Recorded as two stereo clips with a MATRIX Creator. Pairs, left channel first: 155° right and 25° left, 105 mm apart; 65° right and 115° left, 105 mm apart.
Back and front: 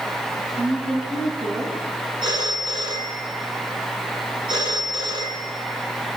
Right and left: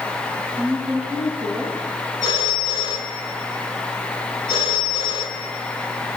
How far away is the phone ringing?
About 7 m.